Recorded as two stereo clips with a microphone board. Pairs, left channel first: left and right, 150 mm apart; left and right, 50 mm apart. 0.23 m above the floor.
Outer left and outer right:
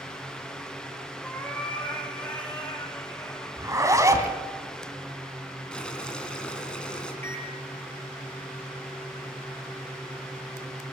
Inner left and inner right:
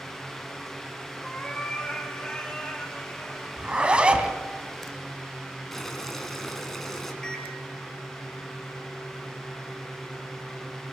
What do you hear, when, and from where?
1.2 s a cat meowing: 10° left (ahead or behind), 4.5 m; by 3.5 s 15° left (ahead or behind), 6 m
3.6 s a zipper: 20° right (ahead or behind), 2 m
5.7 s boiling: 5° left (ahead or behind), 3 m
7.2 s a microwave: 15° left (ahead or behind), 4 m